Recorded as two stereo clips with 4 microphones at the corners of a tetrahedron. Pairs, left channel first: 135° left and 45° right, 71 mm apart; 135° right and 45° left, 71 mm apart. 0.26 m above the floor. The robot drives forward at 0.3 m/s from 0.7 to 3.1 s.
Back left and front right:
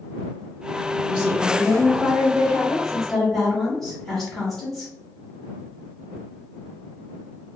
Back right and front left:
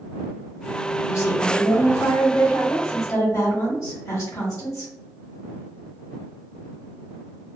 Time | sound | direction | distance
1.1 | a woman speaking | 115° right | 1.4 m